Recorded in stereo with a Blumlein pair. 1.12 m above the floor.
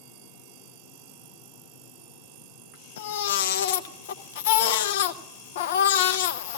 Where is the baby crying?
55° left, 0.6 m.